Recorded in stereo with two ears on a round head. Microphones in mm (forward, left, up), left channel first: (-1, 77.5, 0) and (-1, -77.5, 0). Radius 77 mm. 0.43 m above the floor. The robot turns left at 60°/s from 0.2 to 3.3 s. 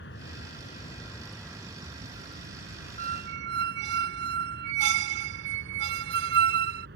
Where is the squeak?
50° right (ahead or behind); by 6.9 s 70° right (ahead or behind).